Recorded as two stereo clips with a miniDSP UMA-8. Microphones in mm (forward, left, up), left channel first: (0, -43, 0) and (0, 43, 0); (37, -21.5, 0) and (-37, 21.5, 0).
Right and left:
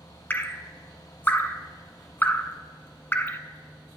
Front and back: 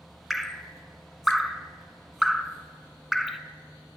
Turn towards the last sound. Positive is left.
turn(degrees=-120)